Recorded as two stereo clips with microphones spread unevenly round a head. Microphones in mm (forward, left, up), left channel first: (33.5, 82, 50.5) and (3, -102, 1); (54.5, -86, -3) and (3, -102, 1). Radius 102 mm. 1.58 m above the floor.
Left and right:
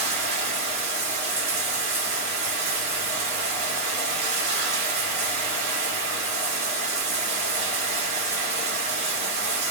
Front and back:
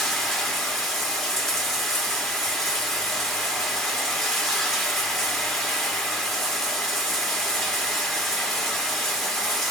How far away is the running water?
About 1.3 m.